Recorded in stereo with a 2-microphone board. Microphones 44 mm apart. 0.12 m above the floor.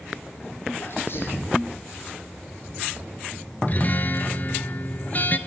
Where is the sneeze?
55° left (ahead or behind), 6.5 m.